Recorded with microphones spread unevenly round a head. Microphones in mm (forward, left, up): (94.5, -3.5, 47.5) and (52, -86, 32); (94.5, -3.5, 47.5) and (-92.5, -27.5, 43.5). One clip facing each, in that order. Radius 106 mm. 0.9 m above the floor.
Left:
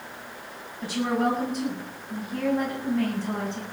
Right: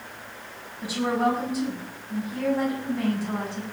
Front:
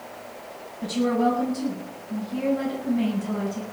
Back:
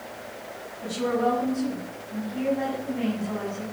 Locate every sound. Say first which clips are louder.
0.8 s a woman speaking: right 1 dB, front 3 dB; 35° right, 7.5 m